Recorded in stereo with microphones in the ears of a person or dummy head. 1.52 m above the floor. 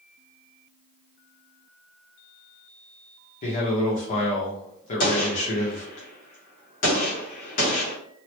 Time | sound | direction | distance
3.4 | a man speaking | 40° left (ahead or behind) | 1.0 m
5.0 | a gunshot | 45° left (ahead or behind) | 1.1 m